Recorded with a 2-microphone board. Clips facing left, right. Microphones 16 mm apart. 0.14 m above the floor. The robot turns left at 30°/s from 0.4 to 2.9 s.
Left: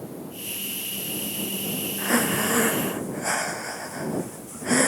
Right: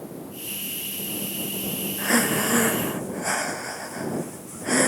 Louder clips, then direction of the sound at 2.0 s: Right 1 dB; 35° right (ahead or behind).